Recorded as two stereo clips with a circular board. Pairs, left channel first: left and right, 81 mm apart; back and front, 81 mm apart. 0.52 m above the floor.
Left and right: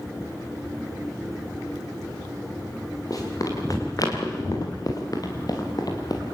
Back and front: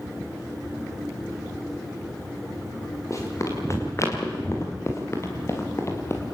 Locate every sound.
3.1 s running footsteps: 130° left, 7.5 m; by 6.2 s 125° left, 6 m